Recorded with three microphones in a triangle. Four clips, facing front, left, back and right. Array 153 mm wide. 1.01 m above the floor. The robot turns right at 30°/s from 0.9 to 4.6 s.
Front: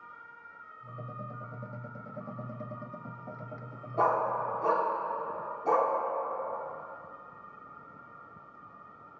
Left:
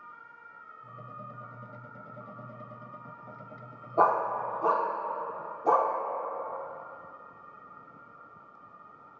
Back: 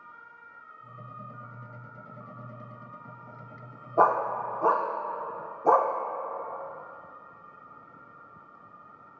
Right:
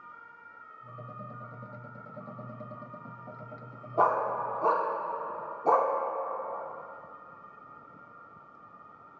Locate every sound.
4.0 s a dog barking: 170° left, 0.6 m; by 5.9 s 175° right, 0.6 m